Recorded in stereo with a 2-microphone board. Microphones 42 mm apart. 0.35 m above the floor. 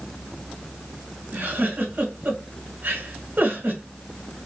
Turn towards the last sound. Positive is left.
turn(degrees=-55)  # may be behind; listen again after turning